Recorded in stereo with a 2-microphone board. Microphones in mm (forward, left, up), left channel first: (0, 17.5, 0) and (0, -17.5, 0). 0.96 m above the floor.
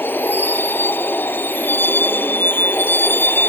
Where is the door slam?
No door slam in this recording.